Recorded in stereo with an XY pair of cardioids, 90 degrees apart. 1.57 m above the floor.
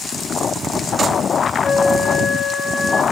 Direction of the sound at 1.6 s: 50° left.